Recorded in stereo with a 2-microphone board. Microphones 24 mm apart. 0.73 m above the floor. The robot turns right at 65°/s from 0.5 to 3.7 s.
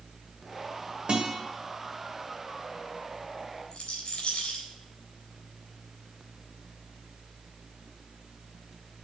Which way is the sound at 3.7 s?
50° left (ahead or behind).